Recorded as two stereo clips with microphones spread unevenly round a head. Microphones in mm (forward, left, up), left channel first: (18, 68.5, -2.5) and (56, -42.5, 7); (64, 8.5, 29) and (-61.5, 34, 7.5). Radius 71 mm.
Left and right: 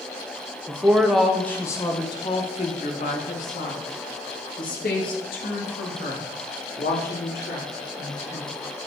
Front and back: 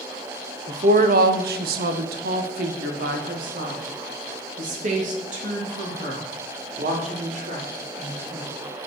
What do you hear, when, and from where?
0.7 s a woman speaking: 145° right, 0.9 m; by 8.5 s 130° left, 4.5 m